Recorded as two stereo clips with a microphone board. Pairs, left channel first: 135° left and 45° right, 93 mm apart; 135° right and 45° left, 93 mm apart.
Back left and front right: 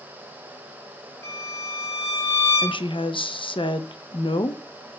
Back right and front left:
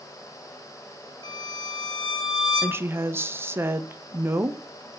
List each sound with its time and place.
1.2 s a violin: 165° right, 3 m
2.6 s a woman speaking: 110° left, 0.8 m